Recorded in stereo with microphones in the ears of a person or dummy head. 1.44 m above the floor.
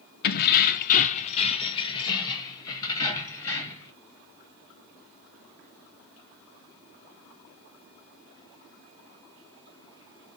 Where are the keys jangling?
55° left (ahead or behind), 0.7 m; by 3.9 s 15° left (ahead or behind), 2 m.